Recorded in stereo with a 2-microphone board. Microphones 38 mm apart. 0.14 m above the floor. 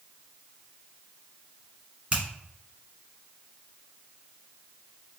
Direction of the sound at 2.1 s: 25° right (ahead or behind).